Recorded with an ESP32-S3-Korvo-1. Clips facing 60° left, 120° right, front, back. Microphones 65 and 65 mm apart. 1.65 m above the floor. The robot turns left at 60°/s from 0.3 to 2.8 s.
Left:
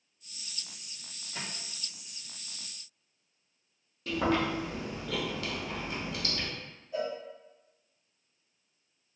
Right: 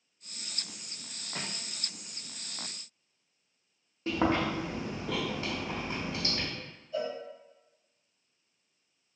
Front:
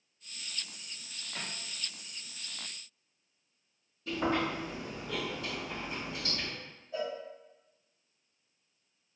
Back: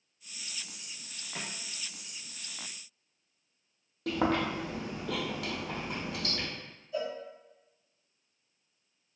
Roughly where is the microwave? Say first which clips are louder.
Right 1 dB, back 1 dB; behind right.